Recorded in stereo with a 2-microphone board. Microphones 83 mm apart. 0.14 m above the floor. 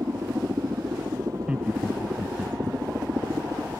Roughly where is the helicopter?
Right.